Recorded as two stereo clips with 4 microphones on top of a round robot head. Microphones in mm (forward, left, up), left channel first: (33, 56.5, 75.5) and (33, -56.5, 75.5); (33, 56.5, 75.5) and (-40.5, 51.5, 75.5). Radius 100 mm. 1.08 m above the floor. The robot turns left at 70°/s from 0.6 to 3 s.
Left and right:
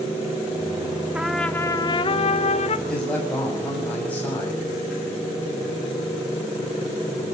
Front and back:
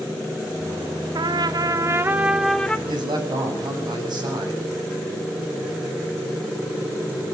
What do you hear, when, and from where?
1.1 s a trumpet: 170° right, 1.4 m; by 2.8 s 75° left, 1.4 m
2.9 s a man speaking: straight behind, 7 m; by 4.7 s 170° left, 7 m